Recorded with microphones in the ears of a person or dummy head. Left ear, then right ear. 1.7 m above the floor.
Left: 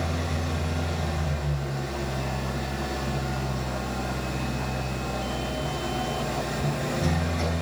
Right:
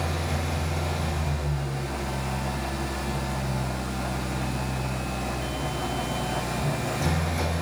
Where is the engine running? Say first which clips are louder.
Right 1 dB; 55° right (ahead or behind), 7 m.